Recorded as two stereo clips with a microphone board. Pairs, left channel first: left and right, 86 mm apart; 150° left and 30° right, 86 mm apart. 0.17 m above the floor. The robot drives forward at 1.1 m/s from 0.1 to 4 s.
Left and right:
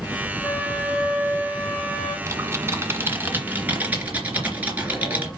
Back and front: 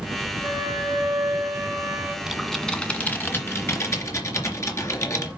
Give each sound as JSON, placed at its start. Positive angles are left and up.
{"t": 0.4, "sound": "a flute", "azimuth_deg": 5, "distance_m": 3.0}
{"t": 2.3, "sound": "typing on a keyboard", "azimuth_deg": -110, "distance_m": 1.5}